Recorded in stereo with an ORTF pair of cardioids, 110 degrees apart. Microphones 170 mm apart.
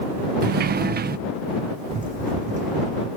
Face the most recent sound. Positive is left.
turn(degrees=-45)